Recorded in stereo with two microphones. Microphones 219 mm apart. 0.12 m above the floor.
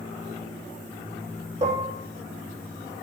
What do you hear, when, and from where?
1.6 s dishes clattering: 35° right (ahead or behind), 4 m